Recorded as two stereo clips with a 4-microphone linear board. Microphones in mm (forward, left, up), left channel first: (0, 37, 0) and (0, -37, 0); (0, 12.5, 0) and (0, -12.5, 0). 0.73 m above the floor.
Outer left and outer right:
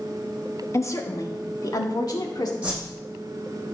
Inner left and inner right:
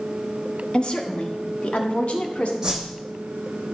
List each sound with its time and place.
0.7 s a woman speaking: 40° left (ahead or behind), 1.1 m; by 2.5 s 65° left (ahead or behind), 2 m
2.6 s a whoosh: 20° right (ahead or behind), 6.5 m